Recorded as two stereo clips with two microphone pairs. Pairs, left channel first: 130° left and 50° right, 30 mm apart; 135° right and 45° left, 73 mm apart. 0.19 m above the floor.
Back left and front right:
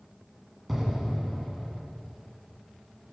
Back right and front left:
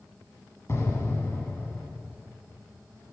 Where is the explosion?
135° right, 1.8 m.